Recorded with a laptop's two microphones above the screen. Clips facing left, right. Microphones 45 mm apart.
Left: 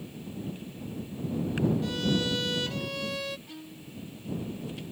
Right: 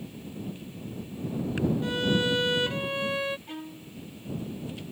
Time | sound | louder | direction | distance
1.8 | a violin | right 3 dB | 25° right (ahead or behind) | ?
3.5 | a violin | right 4 dB | 40° right (ahead or behind) | ?